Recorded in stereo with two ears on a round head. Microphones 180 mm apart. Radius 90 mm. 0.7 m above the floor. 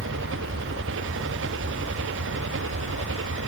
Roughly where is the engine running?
Right.